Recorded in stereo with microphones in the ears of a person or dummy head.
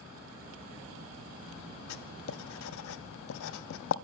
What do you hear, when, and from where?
1.9 s writing: 75° left (ahead or behind), 1.4 m